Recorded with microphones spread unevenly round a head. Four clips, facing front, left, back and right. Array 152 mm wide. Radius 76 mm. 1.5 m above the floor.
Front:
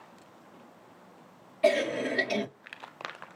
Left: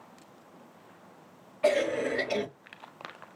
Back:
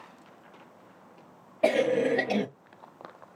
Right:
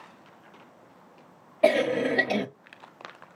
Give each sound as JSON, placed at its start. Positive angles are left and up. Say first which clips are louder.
{"t": 1.6, "sound": "a cough", "louder": "right 4 dB, back 2 dB", "azimuth_deg": -125, "distance_m": 1.0}